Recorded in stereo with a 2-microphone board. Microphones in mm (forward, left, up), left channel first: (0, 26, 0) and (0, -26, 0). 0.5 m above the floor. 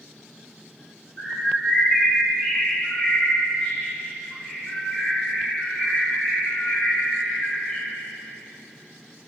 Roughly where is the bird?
Left.